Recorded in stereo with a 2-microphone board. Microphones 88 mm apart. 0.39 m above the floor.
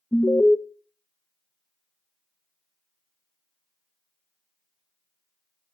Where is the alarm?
25° left (ahead or behind), 0.5 m.